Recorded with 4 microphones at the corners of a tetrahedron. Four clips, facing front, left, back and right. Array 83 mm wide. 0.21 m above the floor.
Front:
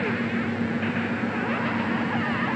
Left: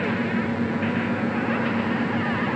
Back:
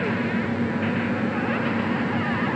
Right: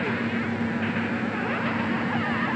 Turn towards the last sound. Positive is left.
No sound to turn to.